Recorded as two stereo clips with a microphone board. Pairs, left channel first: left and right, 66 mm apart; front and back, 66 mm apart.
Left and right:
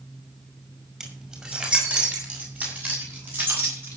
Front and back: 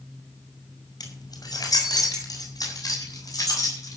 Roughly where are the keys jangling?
Ahead.